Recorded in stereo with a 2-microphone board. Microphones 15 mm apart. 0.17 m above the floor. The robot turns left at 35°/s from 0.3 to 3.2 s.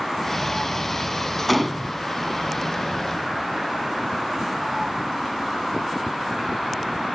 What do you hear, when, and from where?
1.5 s a gunshot: 5° left (ahead or behind), 0.6 m; by 1.9 s centre (ahead or behind), 0.6 m